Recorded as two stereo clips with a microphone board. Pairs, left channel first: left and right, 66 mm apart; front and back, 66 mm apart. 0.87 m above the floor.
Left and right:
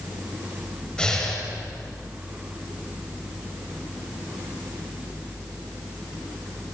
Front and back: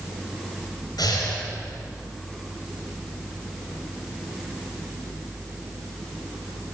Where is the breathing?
15° left, 5.5 m.